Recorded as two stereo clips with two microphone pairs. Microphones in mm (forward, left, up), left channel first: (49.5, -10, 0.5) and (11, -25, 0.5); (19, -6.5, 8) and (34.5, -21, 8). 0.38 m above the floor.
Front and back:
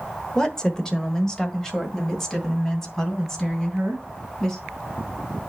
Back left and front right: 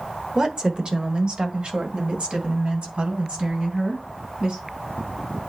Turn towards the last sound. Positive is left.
turn(degrees=-60)